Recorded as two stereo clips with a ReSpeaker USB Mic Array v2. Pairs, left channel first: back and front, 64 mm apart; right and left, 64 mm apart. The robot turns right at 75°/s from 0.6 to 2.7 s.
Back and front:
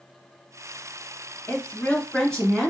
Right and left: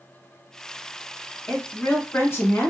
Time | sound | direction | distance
1.5 | a woman speaking | 170° right | 1.6 m